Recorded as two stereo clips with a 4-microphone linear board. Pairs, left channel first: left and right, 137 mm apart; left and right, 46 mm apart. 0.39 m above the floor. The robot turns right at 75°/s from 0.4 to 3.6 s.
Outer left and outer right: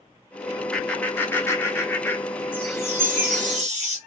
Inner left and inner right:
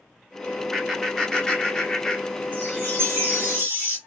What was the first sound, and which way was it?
Laughter, 5° left (ahead or behind).